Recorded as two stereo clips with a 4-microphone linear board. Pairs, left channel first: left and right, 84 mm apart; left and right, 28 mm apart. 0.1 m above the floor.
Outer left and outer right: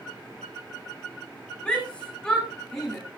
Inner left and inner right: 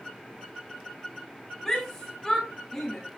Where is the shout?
15° left (ahead or behind), 6.5 m; by 3.0 s 5° left (ahead or behind), 6 m.